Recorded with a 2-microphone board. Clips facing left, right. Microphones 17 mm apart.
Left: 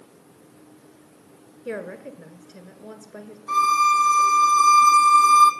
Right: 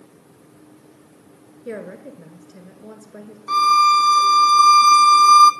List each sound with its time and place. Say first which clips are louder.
1.6 s a woman speaking: even; 20° left (ahead or behind), 1.1 m
3.5 s a violin: right 4 dB; 80° right, 0.7 m